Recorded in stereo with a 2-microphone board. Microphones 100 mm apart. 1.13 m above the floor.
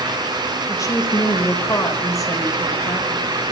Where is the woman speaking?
30° left (ahead or behind), 4 m.